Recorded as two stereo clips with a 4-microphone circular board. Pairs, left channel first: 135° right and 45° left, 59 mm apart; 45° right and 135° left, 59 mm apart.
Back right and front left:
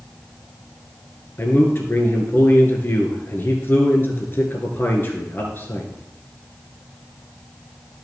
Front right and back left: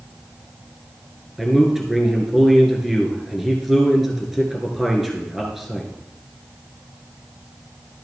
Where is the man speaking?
140° right, 1.4 m.